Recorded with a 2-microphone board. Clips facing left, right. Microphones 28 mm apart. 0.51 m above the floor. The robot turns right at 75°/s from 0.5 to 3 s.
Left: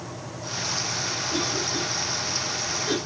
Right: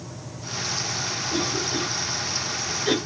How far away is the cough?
About 2.5 m.